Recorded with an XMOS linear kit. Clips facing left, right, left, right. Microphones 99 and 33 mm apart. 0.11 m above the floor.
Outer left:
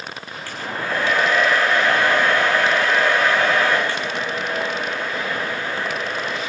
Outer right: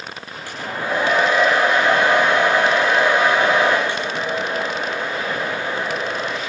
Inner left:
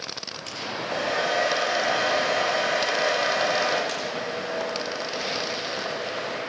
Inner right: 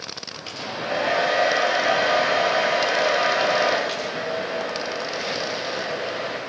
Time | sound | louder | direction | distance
0.5 | a hair dryer | outer right 2 dB, inner right 3 dB | 15° right (ahead or behind) | 6 m